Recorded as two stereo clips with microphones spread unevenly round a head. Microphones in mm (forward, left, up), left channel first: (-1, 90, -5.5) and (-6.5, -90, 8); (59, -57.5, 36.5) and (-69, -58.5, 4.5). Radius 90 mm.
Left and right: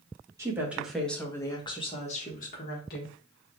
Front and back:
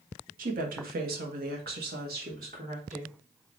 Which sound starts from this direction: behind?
A woman speaking, at 0.4 s.